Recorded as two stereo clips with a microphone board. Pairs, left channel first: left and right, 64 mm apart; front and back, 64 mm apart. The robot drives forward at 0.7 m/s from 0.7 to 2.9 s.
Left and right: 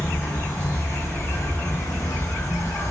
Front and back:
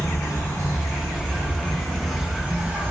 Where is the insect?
40° left, 1.4 m; by 2.9 s 120° left, 1.0 m.